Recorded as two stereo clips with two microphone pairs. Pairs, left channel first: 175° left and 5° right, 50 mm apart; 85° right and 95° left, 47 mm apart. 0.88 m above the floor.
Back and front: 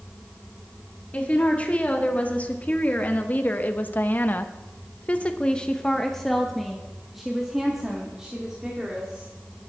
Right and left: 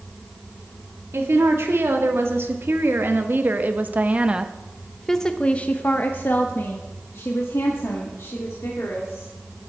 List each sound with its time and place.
1.1 s a woman speaking: 115° left, 2.5 m; by 9.3 s 85° right, 3 m